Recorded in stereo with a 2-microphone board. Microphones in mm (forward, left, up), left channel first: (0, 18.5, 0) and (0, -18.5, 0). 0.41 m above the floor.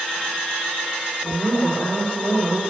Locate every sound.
1.2 s a woman speaking: 35° left (ahead or behind), 1.4 m; by 2.6 s 40° left (ahead or behind), 2 m